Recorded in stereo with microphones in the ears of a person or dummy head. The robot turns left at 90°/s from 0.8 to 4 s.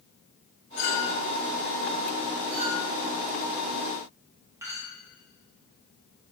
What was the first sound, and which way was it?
A clink, 55° left (ahead or behind).